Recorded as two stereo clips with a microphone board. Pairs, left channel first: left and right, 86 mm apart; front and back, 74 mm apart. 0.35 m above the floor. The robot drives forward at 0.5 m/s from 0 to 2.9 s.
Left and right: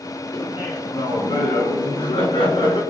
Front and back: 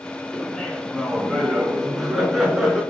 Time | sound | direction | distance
0.3 | laughter | 80° left | 4.5 m